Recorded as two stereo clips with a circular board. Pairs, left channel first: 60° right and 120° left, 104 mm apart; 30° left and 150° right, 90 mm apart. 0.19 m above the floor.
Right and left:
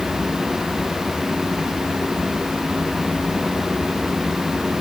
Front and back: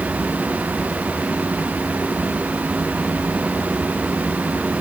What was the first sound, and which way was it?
Only background noise.